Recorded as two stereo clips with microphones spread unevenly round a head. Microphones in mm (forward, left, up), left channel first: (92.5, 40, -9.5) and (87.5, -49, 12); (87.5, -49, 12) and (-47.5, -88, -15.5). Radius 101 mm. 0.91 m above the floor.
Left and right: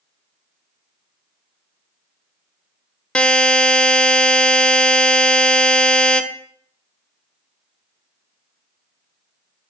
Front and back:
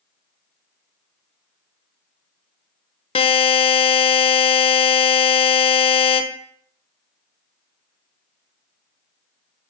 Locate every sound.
3.1 s a buzzer: straight ahead, 0.8 m